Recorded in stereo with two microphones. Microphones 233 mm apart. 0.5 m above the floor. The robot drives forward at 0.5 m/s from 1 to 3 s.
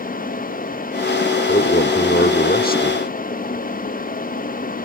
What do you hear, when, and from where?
1.5 s a man speaking: 40° left (ahead or behind)